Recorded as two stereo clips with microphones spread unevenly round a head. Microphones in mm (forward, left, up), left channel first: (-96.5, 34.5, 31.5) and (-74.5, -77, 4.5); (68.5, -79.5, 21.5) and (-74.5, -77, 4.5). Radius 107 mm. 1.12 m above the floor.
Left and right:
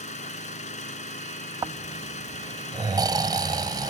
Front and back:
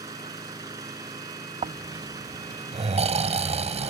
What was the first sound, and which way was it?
An engine running, 105° left.